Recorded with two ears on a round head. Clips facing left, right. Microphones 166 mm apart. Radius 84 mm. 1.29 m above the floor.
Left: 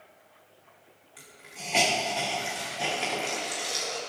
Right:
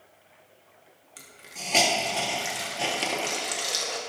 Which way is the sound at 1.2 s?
55° right (ahead or behind).